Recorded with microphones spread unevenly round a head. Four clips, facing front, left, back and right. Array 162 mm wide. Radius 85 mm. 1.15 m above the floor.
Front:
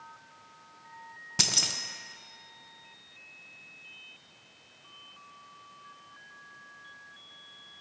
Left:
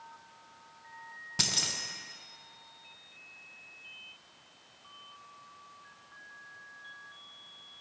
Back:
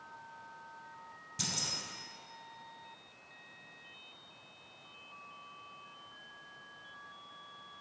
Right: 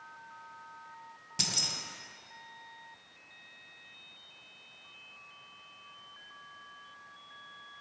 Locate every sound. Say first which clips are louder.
1.4 s keys jangling: left 2 dB, front 6 dB; 20° left, 0.5 m